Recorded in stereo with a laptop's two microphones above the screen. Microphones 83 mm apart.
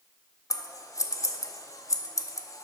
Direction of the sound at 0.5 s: 40° left (ahead or behind).